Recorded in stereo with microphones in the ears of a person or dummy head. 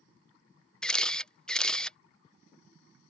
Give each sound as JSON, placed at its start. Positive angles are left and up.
{"t": 0.8, "sound": "a camera shutter", "side_deg": 5}